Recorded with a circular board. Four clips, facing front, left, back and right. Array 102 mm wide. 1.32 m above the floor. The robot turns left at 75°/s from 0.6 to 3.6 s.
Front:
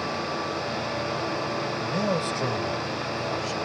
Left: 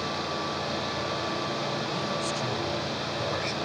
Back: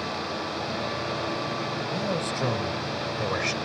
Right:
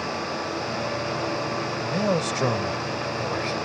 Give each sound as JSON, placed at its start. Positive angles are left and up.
{"t": 1.8, "sound": "a man speaking", "azimuth_deg": -50}